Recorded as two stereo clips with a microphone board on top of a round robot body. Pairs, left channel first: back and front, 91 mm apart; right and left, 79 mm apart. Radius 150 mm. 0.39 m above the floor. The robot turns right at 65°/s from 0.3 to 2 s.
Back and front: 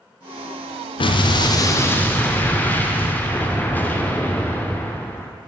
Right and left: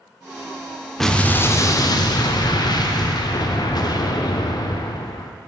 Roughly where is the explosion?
Behind.